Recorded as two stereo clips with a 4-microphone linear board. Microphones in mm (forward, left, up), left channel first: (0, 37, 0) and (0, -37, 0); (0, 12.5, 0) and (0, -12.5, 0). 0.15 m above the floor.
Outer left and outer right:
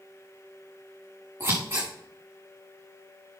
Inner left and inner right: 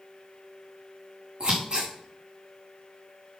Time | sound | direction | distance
1.4 | scissors | 30° right (ahead or behind) | 5 m